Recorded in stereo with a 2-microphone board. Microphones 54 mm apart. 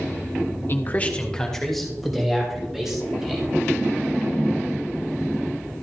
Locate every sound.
0.7 s a man speaking: 45° left (ahead or behind), 1.0 m; by 3.5 s 5° right (ahead or behind), 5 m